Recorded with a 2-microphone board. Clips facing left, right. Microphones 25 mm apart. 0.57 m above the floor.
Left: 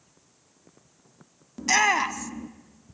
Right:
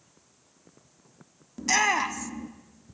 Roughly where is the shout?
Centre.